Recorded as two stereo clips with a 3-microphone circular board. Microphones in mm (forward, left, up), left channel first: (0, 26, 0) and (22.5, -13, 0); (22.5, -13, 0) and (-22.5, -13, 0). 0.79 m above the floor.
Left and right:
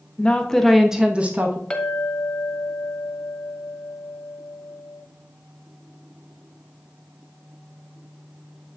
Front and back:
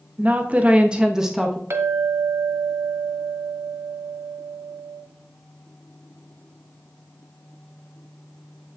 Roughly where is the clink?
Behind.